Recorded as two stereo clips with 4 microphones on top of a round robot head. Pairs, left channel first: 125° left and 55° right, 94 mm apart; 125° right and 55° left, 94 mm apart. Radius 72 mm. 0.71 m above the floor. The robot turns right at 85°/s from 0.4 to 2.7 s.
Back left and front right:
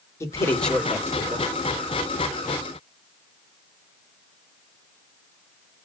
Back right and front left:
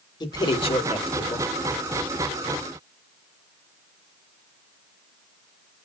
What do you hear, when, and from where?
0.2 s a man speaking: 170° right, 1.5 m; by 1.5 s 80° right, 1.5 m